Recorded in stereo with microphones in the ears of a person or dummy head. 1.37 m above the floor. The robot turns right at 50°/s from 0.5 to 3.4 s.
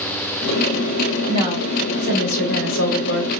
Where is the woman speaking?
15° left, 1.9 m; by 3.3 s 120° left, 1.9 m.